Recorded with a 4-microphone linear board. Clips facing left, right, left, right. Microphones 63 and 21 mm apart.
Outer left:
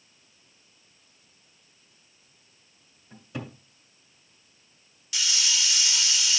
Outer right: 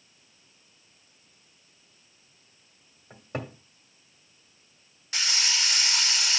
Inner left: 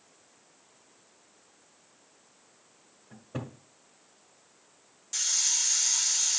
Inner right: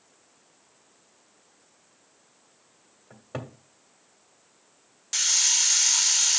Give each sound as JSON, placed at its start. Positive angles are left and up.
{"t": 3.1, "sound": "a cupboard door", "side_deg": -55, "distance_m": 2.0}
{"t": 5.1, "sound": "a hiss", "side_deg": -45, "distance_m": 0.5}